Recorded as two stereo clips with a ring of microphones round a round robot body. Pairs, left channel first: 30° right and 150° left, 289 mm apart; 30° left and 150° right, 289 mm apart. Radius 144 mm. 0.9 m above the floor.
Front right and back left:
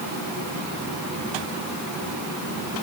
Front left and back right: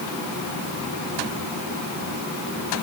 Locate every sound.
Only background noise.